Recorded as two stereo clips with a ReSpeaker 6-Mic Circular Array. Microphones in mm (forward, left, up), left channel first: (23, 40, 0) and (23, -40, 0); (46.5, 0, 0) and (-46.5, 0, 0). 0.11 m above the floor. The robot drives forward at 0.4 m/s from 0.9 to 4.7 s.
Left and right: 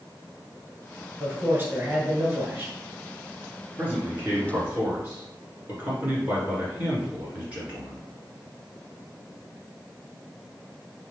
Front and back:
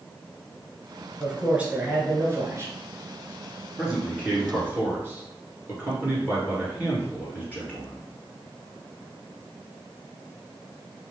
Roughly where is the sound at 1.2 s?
Right.